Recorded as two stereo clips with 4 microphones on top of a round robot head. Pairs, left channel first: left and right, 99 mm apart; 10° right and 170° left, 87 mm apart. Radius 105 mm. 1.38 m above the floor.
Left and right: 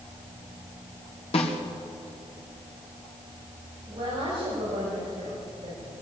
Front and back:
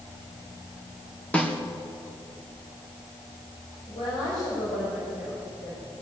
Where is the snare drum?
65° left, 2.5 m.